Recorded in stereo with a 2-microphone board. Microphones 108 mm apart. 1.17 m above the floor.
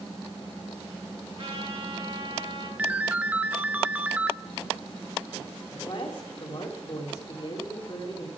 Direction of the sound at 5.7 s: 50° left (ahead or behind).